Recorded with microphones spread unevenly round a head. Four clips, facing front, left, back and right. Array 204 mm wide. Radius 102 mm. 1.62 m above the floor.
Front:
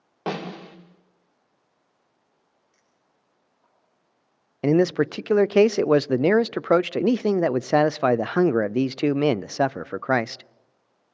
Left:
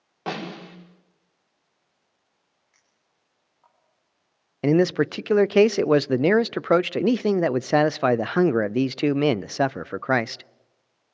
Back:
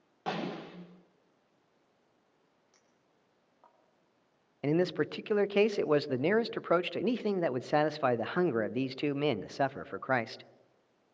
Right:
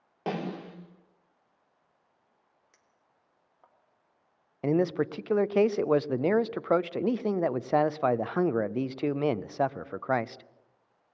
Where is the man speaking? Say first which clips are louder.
Left 6 dB, front 10 dB; 40° left, 0.6 m.